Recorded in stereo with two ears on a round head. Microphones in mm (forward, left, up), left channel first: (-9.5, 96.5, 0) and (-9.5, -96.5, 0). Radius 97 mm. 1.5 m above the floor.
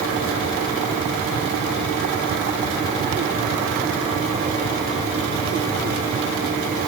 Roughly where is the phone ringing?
No phone ringing in this recording.